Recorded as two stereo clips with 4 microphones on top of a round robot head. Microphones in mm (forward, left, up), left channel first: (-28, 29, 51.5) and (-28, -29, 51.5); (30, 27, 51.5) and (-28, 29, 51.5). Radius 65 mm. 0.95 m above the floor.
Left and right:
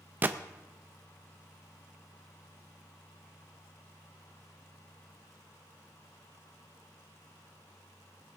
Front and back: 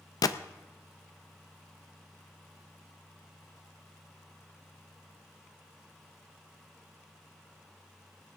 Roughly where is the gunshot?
Ahead right.